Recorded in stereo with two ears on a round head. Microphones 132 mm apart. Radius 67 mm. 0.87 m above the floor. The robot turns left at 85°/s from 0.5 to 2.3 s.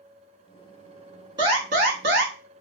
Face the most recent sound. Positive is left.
turn(degrees=-105)